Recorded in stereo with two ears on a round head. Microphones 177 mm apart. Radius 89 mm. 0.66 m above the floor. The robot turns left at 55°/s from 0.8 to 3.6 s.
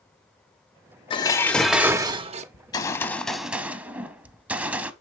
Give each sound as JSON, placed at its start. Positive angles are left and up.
{"t": 1.1, "sound": "dishes clattering", "azimuth_deg": 30, "distance_m": 0.7}
{"t": 2.5, "sound": "a gunshot", "azimuth_deg": 45, "distance_m": 0.6}